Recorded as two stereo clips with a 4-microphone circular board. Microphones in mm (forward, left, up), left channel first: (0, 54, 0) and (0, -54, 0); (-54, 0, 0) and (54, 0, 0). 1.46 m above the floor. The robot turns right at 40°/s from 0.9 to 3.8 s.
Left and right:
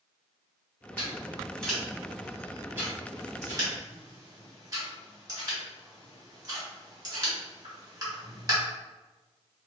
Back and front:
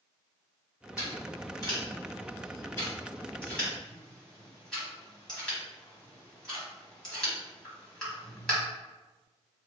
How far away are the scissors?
About 1.5 m.